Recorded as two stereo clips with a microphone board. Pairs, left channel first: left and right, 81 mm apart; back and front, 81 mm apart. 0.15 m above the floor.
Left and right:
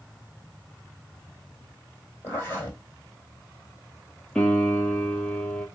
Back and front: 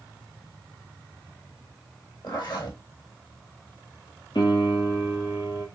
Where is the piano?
165° left, 1.4 m.